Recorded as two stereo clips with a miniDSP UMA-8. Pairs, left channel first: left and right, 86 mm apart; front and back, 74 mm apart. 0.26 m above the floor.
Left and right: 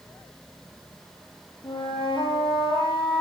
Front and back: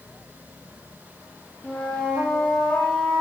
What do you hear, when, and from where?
1.6 s a flute: 85° left, 1.6 m